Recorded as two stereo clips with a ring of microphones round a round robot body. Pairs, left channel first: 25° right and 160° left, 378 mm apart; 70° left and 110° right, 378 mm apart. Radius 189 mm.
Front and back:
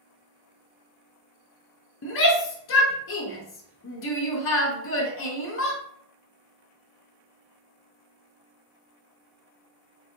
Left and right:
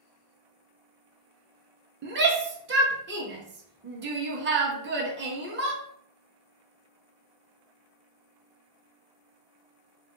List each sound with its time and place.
2.0 s a shout: 65° right, 0.7 m